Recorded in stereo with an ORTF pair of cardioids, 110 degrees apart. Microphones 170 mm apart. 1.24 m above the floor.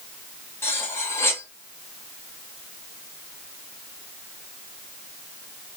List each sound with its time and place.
0.6 s cutlery clinking: 15° left, 1.2 m